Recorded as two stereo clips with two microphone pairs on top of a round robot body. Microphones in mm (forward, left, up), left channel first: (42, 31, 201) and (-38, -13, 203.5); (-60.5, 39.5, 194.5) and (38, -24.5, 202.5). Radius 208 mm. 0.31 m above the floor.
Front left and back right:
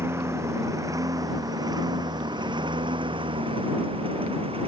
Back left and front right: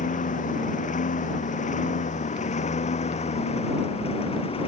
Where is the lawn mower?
145° left; by 4.7 s 170° right.